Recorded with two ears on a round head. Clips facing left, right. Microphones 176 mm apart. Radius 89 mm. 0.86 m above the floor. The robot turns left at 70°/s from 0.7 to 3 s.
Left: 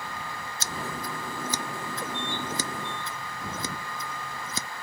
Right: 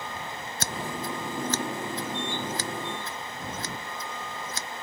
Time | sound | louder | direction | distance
0.6 | scissors | right 2 dB | 45° right (ahead or behind) | ?